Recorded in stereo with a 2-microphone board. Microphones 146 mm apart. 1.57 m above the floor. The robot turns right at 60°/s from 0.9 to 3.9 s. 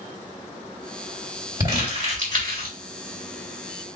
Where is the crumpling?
20° right (ahead or behind), 2.5 m; by 2.8 s 80° right, 2.5 m.